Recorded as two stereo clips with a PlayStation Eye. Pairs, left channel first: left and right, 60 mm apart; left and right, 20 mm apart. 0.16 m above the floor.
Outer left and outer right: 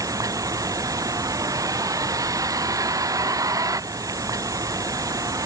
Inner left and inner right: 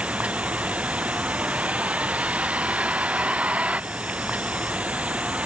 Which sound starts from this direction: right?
A vehicle, at 0.0 s.